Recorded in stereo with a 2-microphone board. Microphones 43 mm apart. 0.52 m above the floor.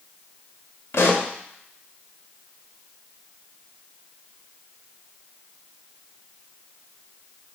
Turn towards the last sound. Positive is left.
turn(degrees=75)  # may be behind; listen again after turning